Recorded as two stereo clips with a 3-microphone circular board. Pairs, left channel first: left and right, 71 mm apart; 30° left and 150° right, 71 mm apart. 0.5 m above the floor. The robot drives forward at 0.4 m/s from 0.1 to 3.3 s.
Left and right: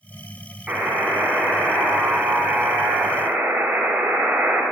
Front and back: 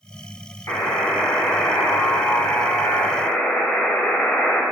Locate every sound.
0.7 s a buzzer: 15° right, 2.5 m; by 4.6 s 30° right, 1.4 m